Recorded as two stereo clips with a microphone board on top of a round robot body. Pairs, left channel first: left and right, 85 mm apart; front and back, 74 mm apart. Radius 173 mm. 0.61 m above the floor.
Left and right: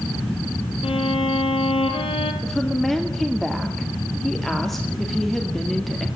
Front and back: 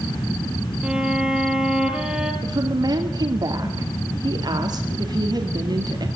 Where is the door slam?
No door slam in this recording.